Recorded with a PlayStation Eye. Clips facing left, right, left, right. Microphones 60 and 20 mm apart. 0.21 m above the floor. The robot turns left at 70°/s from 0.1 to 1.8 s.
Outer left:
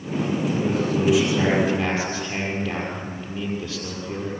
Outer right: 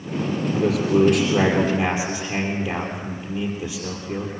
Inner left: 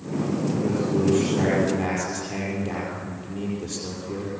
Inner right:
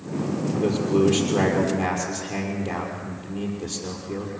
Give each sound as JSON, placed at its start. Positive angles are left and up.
{"t": 0.5, "sound": "a man speaking", "azimuth_deg": -80, "distance_m": 5.5}